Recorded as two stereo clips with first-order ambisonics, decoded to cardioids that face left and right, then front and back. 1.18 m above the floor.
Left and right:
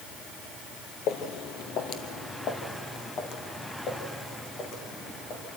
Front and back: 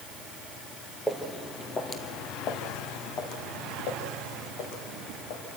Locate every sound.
1.1 s footsteps: 95° left, 1.6 m; by 5.4 s 30° left, 4.5 m